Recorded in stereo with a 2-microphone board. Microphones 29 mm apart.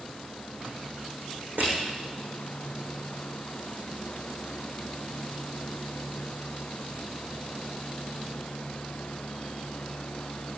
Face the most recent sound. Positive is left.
turn(degrees=-80)